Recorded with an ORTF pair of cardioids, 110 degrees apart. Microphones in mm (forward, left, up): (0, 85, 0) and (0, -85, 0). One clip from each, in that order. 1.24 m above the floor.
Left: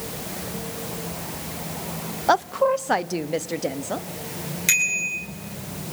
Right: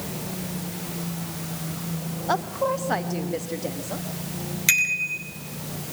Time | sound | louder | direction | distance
2.3 | a woman speaking | left 5 dB | 50° left | 0.8 m
4.7 | a bicycle bell | even | 25° right | 8.5 m